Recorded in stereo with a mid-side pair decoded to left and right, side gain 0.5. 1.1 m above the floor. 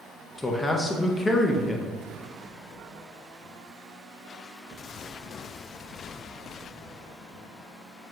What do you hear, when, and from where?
0.4 s a man speaking: 20° left, 0.5 m